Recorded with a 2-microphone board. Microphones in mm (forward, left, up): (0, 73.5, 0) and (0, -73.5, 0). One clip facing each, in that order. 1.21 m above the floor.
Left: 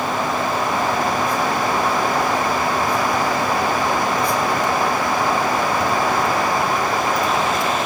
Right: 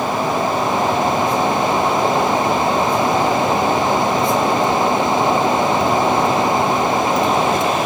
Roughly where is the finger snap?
I don't hear a finger snap.